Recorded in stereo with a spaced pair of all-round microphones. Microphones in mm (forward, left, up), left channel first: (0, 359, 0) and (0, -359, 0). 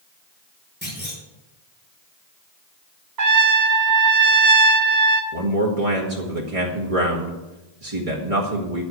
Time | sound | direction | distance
0.8 | a clunk | 15° left (ahead or behind) | 5.5 m
3.2 | a trumpet | 75° right (ahead or behind) | 1.3 m
5.3 | a man speaking | 50° right (ahead or behind) | 2.0 m